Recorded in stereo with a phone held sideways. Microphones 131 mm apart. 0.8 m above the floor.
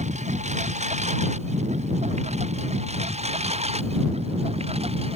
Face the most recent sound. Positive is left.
turn(degrees=-50)  # may be behind; listen again after turning